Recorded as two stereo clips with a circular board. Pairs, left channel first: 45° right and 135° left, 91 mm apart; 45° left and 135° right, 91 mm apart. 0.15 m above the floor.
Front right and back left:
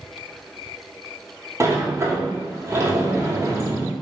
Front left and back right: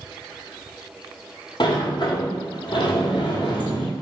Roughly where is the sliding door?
Left.